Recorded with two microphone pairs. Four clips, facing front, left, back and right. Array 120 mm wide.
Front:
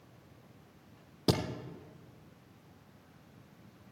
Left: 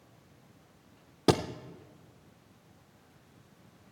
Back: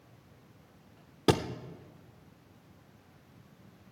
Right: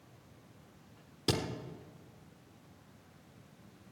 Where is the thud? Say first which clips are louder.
Left 8 dB, back 4 dB; 115° left, 1.0 m.